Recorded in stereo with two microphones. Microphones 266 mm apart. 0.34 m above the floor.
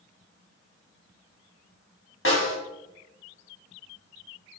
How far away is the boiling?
No boiling in this recording.